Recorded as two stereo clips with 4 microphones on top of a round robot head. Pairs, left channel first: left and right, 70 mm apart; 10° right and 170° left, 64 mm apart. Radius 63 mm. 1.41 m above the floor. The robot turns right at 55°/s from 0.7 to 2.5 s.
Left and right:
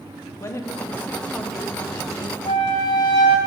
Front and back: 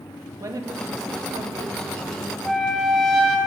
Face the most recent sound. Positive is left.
turn(degrees=80)